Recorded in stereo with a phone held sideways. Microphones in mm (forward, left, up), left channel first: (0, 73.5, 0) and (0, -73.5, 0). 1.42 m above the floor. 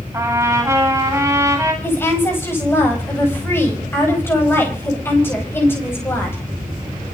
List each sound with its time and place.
0.1 s a trumpet: 20° right (ahead or behind), 9 m
1.8 s a woman speaking: 15° left (ahead or behind), 9 m